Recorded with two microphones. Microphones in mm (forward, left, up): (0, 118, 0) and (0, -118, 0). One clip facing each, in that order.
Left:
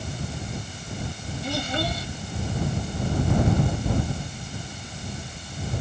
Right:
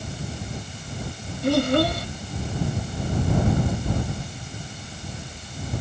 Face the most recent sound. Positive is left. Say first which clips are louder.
# right 10 dB
turn(degrees=-65)  # may be behind; listen again after turning